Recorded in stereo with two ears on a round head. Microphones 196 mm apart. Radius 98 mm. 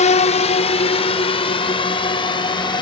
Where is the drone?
35° left (ahead or behind); by 2.8 s 20° left (ahead or behind).